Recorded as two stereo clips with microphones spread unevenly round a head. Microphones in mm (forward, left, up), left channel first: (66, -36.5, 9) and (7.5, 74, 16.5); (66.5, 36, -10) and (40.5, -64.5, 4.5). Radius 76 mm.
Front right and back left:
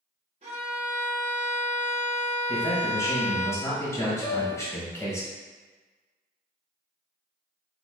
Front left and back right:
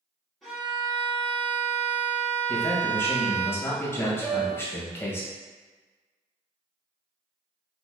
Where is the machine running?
I don't hear a machine running.